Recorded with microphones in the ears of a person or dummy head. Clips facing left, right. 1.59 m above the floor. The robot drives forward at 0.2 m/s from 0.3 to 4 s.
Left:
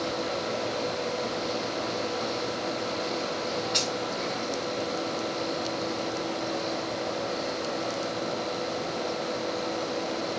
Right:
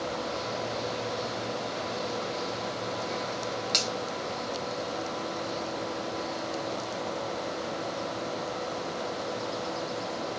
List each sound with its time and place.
3.7 s a finger snap: 45° right (ahead or behind), 1.1 m